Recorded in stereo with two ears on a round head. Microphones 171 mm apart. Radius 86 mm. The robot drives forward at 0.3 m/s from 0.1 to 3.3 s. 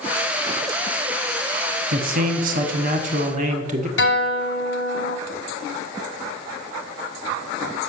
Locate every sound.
1.9 s a man speaking: 45° right (ahead or behind), 1.0 m; by 3.9 s 40° right (ahead or behind), 1.1 m
4.0 s a guitar: 65° left (ahead or behind), 1.1 m